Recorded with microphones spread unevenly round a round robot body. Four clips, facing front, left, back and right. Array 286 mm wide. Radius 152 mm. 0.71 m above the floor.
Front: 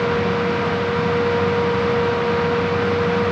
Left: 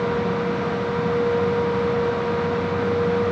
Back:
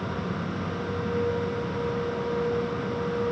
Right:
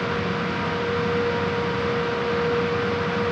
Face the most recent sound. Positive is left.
No sound to turn to.